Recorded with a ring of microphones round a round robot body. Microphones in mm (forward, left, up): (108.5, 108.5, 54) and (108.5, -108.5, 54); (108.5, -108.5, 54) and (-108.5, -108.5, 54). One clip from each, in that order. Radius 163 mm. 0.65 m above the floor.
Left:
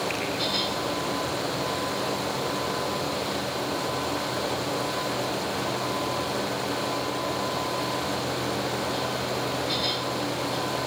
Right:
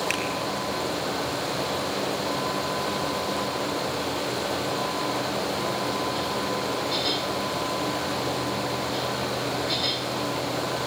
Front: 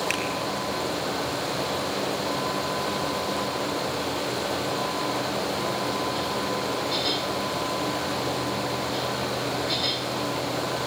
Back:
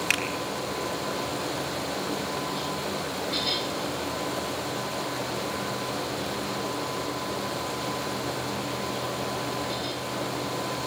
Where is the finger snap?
135° right, 6.5 m.